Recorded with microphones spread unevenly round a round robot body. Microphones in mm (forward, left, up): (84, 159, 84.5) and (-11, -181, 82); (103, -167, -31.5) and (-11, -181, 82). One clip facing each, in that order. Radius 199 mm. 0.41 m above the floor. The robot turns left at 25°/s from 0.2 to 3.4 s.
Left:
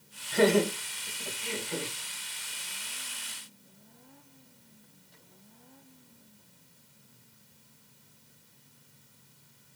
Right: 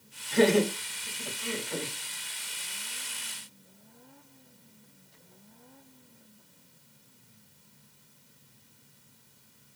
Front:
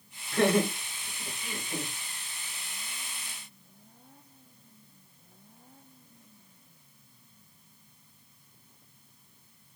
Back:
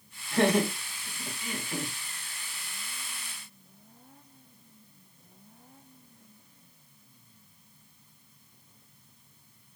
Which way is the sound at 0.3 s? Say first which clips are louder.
Right 1 dB, even; 160° right.